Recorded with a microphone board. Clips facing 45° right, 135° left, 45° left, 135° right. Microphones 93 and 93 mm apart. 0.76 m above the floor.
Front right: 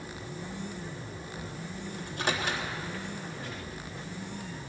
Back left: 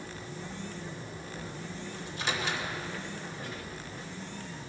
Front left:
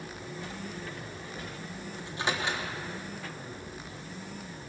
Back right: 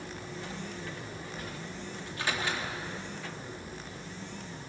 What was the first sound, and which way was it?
A microwave, 20° right.